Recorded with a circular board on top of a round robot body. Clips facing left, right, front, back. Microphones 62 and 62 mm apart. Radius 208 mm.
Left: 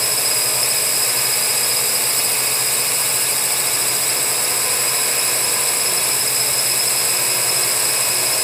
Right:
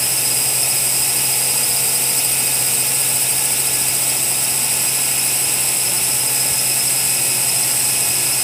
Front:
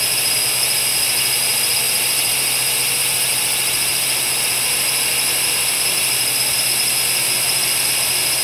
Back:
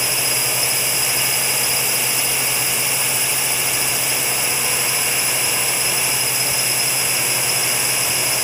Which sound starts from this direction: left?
A drone, at 0.0 s.